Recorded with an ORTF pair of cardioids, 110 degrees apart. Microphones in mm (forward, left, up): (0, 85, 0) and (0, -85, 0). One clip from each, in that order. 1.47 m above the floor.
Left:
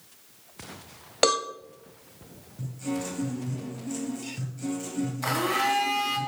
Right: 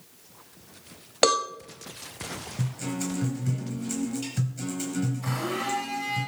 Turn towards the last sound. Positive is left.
turn(degrees=60)